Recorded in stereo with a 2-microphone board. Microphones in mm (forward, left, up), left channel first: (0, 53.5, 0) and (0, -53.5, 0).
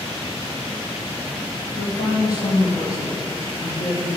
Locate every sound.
1.8 s a woman speaking: 40° left (ahead or behind), 3.5 m